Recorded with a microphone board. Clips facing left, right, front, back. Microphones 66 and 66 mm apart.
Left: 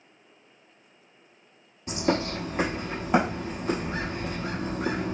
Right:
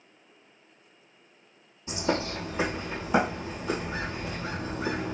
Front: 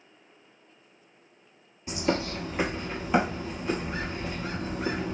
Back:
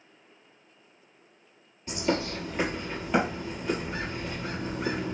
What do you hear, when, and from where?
1.9 s a bird: 80° left, 1.0 m